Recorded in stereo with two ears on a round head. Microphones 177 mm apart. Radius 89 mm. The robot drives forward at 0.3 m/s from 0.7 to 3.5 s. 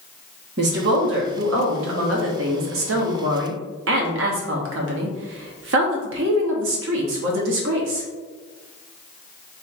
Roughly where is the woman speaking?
Right.